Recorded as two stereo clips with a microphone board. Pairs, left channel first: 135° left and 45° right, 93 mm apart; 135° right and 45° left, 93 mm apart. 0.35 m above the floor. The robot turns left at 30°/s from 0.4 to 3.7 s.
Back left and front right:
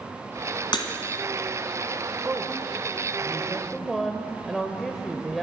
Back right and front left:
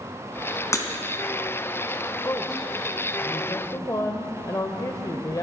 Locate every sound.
0.7 s breaking glass: 170° left, 2 m; by 0.8 s 165° left, 2 m
2.2 s a woman speaking: 95° right, 1.0 m; by 5.4 s 140° right, 1.0 m